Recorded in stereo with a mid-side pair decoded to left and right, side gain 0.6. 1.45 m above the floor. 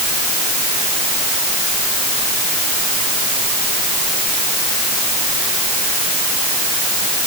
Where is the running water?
No running water in this recording.